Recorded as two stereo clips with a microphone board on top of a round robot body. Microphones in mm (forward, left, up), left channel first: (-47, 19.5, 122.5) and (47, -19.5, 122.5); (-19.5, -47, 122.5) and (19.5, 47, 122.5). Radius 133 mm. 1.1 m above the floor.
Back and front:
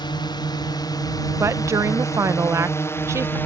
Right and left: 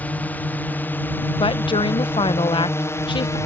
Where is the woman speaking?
85° right.